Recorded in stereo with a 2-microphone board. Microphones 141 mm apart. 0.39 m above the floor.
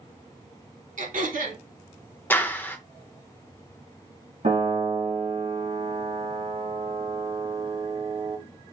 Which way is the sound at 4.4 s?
90° right.